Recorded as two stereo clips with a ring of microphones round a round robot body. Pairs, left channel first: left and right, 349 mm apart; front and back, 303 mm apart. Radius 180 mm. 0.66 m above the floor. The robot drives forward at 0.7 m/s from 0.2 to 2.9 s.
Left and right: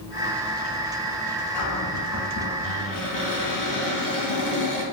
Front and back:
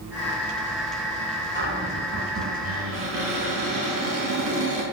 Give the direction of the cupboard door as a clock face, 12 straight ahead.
8 o'clock.